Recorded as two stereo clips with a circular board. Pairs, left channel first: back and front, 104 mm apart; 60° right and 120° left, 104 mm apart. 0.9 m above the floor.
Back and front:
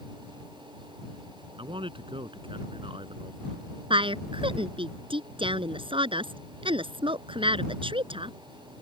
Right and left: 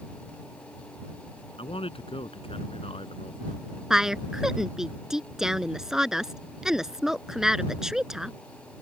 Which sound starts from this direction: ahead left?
A woman speaking, at 3.9 s.